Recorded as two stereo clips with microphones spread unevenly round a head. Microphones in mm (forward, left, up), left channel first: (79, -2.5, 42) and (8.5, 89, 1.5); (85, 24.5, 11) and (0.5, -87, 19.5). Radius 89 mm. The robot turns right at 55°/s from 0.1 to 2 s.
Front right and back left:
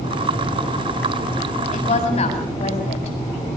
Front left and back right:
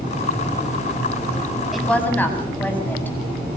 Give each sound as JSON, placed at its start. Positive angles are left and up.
{"t": 1.7, "sound": "a woman speaking", "azimuth_deg": -40, "distance_m": 7.5}